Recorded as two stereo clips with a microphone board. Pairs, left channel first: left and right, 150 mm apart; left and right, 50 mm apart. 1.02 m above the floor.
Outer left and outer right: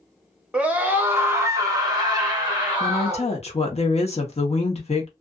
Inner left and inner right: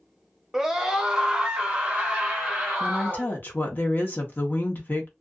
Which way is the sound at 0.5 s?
5° right (ahead or behind).